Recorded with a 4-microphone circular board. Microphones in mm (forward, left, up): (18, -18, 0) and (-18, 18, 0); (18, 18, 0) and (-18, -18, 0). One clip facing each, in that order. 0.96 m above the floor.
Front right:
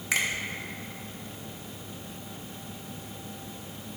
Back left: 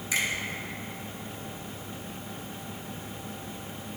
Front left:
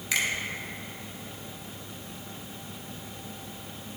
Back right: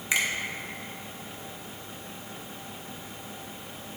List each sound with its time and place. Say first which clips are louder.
0.1 s a finger snap: front right 1 dB, back right 1 dB; 65° right, 1.3 m